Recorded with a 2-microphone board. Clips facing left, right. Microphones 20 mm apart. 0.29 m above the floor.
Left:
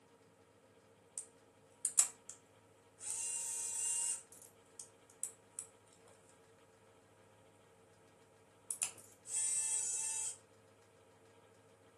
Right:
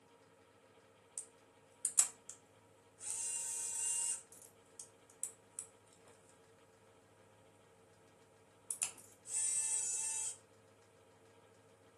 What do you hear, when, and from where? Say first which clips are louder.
1.2 s a camera shutter: even; 5° left (ahead or behind), 0.8 m